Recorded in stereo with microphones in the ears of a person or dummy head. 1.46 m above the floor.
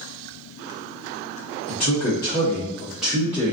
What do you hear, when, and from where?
1.7 s a man speaking: 45° left (ahead or behind), 1.0 m; by 3.5 s 20° right (ahead or behind), 0.7 m